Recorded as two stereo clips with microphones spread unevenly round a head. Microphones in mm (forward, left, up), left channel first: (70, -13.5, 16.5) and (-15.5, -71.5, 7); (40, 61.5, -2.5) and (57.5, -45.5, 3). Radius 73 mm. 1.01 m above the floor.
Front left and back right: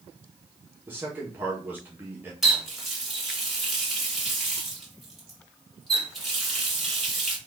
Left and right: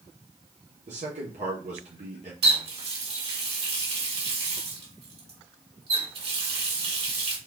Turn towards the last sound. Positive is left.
turn(degrees=-55)